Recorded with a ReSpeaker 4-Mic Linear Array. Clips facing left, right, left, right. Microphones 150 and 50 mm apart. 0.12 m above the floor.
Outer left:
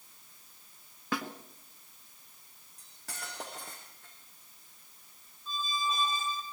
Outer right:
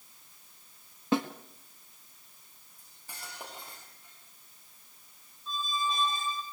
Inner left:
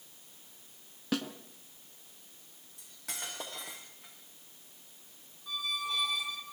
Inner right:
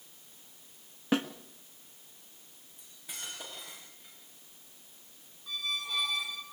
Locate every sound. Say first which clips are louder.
1.1 s a snare drum: outer right 7 dB, inner right 4 dB; 25° right (ahead or behind), 1.4 m
2.8 s cutlery clinking: outer left 3 dB, inner left 3 dB; 80° left, 6 m
5.5 s a squeak: outer right 1 dB, inner left 1 dB; 5° left (ahead or behind), 2.5 m